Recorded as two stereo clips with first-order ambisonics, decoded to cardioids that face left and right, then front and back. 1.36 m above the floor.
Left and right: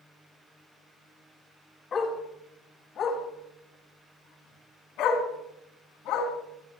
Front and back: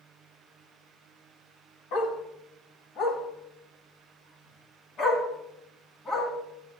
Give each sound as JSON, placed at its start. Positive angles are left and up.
{"t": 1.9, "sound": "a dog barking", "azimuth_deg": 25, "distance_m": 2.5}